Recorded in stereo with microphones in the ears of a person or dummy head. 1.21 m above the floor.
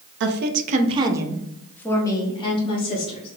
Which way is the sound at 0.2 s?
55° right (ahead or behind).